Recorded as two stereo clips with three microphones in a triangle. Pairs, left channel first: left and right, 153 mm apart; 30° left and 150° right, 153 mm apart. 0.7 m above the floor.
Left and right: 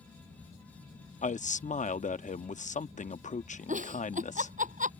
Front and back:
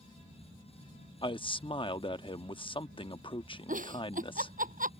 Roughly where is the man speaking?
Left.